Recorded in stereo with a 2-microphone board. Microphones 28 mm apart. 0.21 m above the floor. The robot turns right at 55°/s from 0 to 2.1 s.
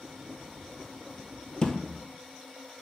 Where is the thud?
35° left (ahead or behind), 0.9 m; by 1.8 s 25° left (ahead or behind), 0.9 m.